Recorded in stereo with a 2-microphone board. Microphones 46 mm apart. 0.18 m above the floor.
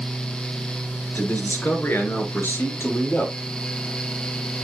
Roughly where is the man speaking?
Left.